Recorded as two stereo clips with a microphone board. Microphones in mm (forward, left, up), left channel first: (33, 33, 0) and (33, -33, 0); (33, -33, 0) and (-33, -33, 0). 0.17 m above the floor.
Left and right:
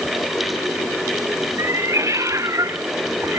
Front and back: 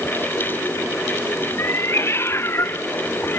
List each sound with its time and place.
1.6 s a cat meowing: 50° right; by 3.4 s 55° right